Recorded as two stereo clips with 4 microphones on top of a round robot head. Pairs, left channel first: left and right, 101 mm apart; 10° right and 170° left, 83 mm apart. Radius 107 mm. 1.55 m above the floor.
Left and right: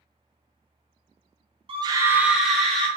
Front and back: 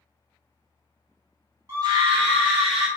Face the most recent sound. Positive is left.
turn(degrees=170)